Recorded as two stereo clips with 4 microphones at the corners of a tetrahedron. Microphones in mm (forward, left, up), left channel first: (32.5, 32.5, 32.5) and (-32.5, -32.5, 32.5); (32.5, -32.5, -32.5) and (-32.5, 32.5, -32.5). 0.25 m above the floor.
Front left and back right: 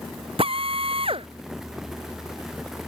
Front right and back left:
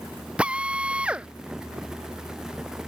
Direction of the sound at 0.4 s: 145° right.